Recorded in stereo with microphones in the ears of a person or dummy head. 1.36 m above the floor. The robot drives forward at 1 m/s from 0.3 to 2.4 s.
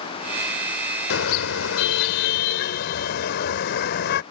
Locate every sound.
1.1 s a car horn: 70° left (ahead or behind); by 4.2 s 60° left (ahead or behind)